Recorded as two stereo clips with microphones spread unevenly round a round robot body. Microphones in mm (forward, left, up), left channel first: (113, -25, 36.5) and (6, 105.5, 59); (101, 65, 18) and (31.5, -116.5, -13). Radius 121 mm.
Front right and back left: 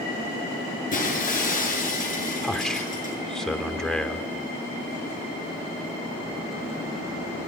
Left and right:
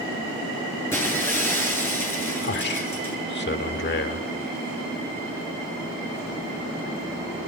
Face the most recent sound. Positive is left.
turn(degrees=35)